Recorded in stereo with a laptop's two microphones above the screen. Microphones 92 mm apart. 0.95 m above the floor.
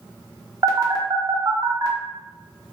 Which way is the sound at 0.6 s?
45° right (ahead or behind).